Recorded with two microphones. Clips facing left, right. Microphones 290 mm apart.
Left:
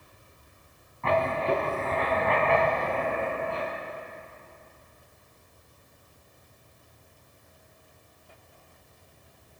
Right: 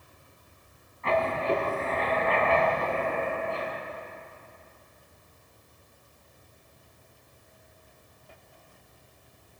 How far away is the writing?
About 2.5 m.